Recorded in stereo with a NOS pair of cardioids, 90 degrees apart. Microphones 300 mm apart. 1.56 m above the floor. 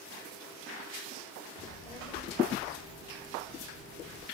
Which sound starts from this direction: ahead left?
A child speaking, at 1.6 s.